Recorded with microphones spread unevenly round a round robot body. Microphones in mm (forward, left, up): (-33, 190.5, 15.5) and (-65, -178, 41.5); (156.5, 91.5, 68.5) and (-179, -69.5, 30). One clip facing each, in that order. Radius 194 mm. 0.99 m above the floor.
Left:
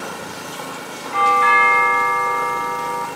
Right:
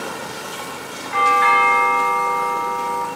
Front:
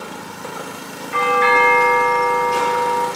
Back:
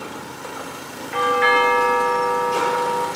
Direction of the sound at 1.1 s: 50° right.